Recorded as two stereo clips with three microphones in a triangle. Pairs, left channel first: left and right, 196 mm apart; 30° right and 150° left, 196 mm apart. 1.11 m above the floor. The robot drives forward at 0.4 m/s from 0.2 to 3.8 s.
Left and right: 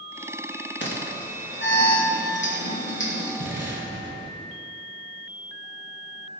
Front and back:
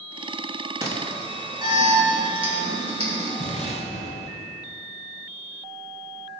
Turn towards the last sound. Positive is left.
turn(degrees=-85)